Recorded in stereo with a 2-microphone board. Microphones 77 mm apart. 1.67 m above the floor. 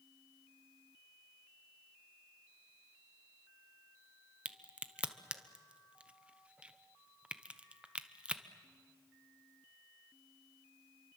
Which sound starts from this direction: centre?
A crack, at 4.5 s.